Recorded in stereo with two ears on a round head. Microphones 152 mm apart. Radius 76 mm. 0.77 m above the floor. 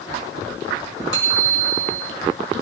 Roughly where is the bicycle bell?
Right.